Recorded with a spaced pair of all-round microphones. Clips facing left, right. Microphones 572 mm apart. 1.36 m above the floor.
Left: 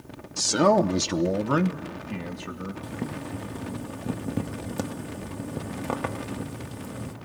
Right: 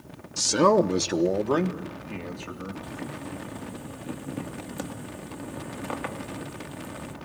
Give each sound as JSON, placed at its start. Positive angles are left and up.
{"t": 0.4, "sound": "a man speaking", "side_deg": -15, "distance_m": 0.5}
{"t": 2.8, "sound": "boiling", "side_deg": 65, "distance_m": 1.2}